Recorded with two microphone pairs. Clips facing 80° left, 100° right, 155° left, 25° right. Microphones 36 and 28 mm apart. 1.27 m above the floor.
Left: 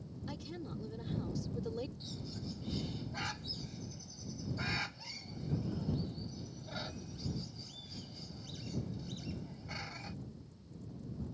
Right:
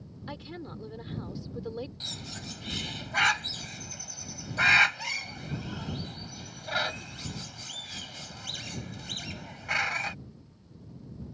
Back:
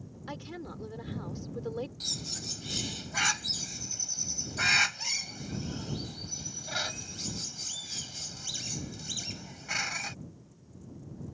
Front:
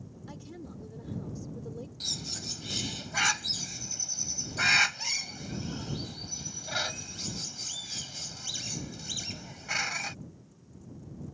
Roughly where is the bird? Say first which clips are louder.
Right 6 dB, front 1 dB; right.